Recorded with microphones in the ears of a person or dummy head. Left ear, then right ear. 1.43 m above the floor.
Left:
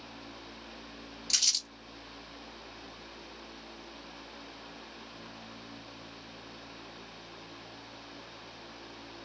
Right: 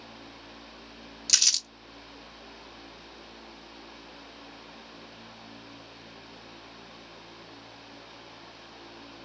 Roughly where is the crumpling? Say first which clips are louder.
Right 5 dB; right.